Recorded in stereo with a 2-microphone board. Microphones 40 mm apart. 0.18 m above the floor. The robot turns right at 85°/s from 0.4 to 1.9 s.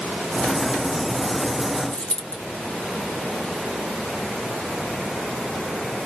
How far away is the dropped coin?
About 0.8 m.